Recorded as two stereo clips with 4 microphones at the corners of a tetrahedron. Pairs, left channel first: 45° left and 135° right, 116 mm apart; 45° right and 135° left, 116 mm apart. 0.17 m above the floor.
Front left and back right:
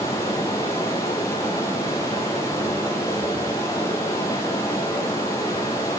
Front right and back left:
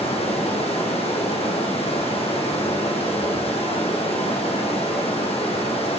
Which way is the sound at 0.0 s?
15° right.